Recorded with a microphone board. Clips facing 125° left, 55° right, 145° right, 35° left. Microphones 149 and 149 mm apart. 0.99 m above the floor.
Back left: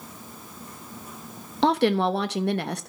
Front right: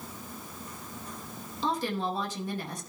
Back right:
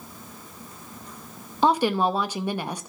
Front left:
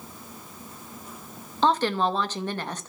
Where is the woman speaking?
135° left, 0.9 m.